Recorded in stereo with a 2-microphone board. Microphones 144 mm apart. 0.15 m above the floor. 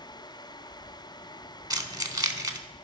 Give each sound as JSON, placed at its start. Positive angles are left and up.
{"t": 1.7, "sound": "keys jangling", "side_deg": -25, "distance_m": 0.8}